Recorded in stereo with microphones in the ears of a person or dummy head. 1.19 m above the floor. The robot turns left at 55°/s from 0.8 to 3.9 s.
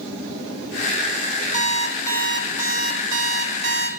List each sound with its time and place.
1.5 s an alarm clock: 45° left, 2 m; by 3.9 s 85° right, 2 m